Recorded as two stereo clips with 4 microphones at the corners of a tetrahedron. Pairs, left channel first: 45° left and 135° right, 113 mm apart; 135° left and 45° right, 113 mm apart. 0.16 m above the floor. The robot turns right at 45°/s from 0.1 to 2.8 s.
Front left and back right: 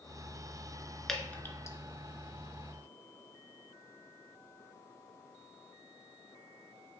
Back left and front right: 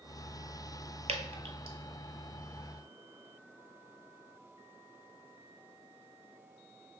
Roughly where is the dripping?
Ahead right.